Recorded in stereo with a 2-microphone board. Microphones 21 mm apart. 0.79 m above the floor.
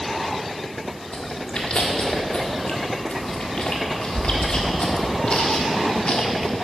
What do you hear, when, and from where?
1.1 s chewing: 70° left (ahead or behind), 1.5 m